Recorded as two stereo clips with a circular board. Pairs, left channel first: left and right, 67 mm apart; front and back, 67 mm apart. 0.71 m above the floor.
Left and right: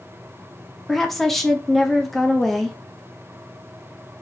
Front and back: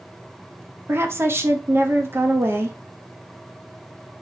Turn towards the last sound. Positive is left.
turn(degrees=175)